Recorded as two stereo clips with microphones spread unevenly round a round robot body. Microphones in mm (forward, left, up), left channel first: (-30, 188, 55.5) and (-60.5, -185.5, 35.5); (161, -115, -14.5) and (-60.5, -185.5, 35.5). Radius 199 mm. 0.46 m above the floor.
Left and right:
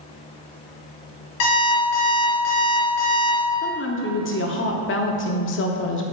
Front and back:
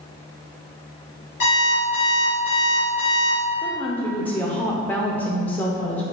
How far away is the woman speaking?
About 0.8 m.